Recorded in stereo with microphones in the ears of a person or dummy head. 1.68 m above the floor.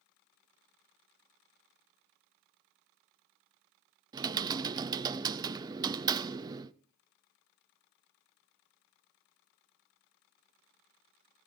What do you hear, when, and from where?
4.1 s typing on a keyboard: 20° right (ahead or behind), 0.6 m